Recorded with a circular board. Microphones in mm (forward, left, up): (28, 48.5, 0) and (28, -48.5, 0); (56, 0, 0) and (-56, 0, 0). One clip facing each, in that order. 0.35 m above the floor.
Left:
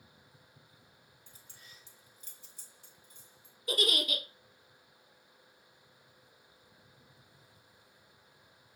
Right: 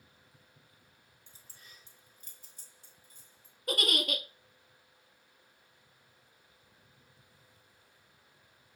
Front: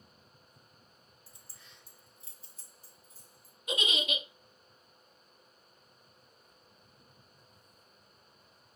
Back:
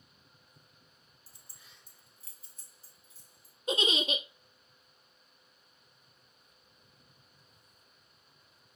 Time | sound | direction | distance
1.3 | keys jangling | 145° right | 1.1 m
3.7 | a giggle | 120° right | 0.8 m